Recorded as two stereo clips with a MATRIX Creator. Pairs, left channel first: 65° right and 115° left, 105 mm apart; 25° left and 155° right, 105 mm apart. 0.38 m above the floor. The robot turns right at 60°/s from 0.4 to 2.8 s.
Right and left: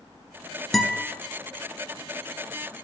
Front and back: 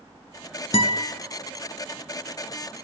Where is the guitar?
20° left, 0.8 m; by 1.1 s 40° left, 0.8 m.